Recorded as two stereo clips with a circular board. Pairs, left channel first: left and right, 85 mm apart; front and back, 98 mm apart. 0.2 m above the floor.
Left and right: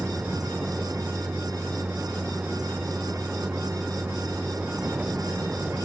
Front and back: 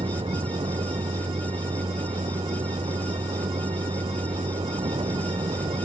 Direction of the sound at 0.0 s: 160° right.